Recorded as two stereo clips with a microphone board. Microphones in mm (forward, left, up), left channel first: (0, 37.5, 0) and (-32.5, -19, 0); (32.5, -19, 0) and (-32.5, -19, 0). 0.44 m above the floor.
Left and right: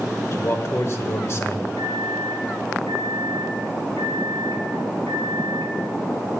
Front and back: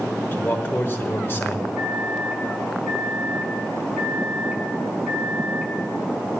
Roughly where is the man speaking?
Ahead left.